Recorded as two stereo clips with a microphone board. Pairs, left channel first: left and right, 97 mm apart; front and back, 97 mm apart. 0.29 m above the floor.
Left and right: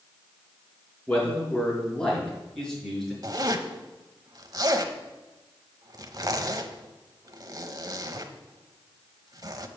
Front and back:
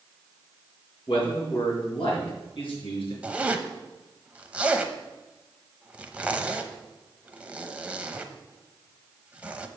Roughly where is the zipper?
Right.